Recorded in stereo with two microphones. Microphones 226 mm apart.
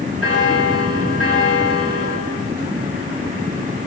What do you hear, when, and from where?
0.2 s a bell: 85° left, 10 m